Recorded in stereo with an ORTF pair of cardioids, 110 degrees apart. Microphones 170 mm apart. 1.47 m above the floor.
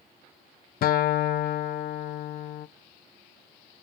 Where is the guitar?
60° left, 1.2 m.